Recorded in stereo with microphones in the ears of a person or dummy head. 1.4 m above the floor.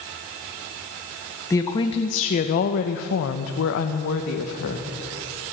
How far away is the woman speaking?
About 0.9 m.